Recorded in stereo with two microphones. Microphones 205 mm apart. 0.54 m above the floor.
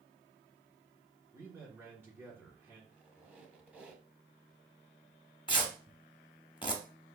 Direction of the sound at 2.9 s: 5° right (ahead or behind).